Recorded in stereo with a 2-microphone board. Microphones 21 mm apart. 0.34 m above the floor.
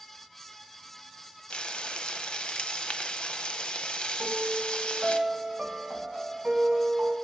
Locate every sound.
1.5 s frying: 65° left (ahead or behind), 0.5 m
4.2 s a piano: 50° right (ahead or behind), 1.2 m